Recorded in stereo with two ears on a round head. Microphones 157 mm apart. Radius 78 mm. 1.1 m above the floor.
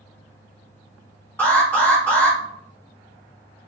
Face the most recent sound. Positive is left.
turn(degrees=10)  # may be behind; listen again after turning